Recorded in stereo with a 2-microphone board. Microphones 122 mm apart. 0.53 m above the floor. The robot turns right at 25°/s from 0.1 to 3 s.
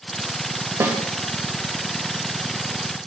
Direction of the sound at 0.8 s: 25° right (ahead or behind).